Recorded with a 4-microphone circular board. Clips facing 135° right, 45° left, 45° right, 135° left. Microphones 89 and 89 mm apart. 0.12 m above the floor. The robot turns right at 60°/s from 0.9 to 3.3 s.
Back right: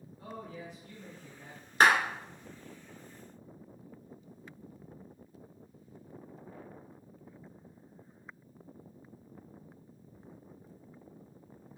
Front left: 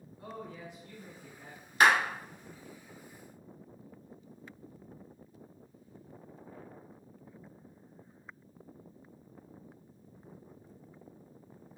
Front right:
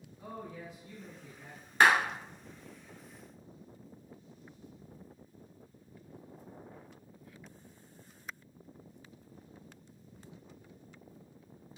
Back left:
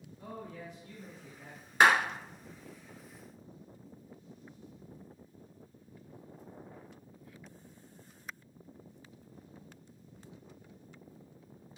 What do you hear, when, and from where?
0.2 s a man speaking: straight ahead, 1.2 m; by 1.7 s 45° left, 1.2 m
1.8 s a clap: 160° right, 1.6 m; by 1.9 s 150° right, 1.6 m